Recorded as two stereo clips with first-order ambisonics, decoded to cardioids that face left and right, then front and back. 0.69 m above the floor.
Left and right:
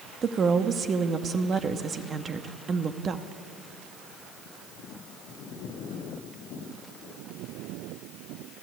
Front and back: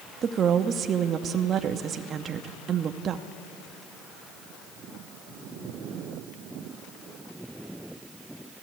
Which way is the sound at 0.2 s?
135° right.